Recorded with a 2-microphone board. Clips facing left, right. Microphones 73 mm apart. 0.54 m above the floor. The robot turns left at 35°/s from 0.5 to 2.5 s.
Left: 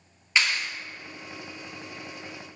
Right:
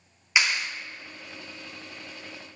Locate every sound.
0.4 s a clap: 10° right (ahead or behind), 0.7 m